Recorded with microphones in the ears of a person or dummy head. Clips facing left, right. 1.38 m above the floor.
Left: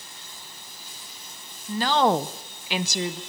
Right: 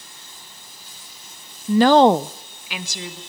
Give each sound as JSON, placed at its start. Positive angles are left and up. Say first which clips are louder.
{"t": 1.7, "sound": "a woman speaking", "louder": "right 9 dB", "side_deg": -75, "distance_m": 0.7}